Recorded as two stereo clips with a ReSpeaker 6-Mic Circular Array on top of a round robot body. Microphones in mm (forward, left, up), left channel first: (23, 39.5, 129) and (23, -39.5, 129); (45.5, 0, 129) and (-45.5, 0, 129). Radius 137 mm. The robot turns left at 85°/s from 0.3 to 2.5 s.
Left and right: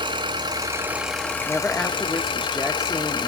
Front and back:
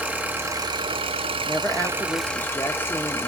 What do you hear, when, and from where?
0.0 s an engine running: 105° right, 1.4 m; by 3.3 s 65° left, 1.4 m
1.5 s a woman speaking: 60° left, 1.1 m; by 3.3 s 25° right, 1.1 m